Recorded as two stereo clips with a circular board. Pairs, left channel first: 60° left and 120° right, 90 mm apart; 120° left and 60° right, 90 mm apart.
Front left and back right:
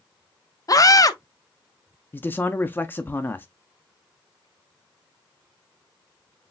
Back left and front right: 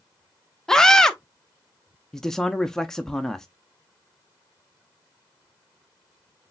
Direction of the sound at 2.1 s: 45° left.